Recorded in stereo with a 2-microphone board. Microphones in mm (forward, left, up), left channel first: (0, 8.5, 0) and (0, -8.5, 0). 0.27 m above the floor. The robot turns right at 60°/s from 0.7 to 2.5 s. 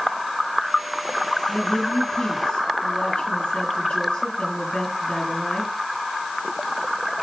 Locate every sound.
1.5 s a woman speaking: 40° left, 5 m; by 5.7 s 100° left, 5 m